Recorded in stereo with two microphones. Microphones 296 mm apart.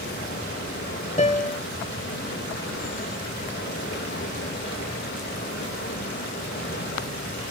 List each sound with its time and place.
0.0 s running water: 35° left (ahead or behind), 4.5 m
1.2 s a piano: 25° left (ahead or behind), 0.6 m